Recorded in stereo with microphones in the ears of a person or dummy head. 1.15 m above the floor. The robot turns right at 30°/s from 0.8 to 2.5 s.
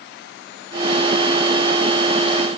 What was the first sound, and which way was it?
Only background noise.